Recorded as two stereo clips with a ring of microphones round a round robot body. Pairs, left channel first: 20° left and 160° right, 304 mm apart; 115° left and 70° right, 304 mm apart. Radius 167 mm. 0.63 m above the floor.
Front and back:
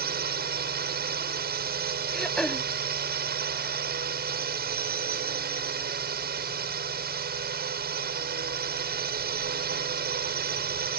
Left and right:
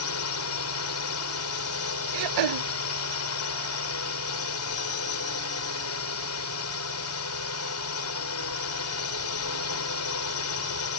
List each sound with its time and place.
0.0 s a drone: 145° left
2.1 s throat clearing: 65° right